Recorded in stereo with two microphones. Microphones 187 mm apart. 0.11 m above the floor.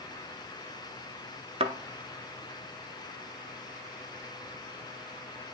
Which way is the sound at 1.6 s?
30° right (ahead or behind).